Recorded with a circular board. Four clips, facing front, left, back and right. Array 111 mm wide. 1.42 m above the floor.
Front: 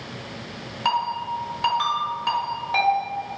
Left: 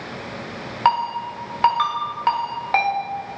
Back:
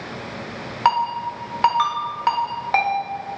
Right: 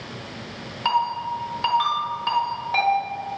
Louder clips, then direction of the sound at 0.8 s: Left 3 dB, back 4 dB; 135° left.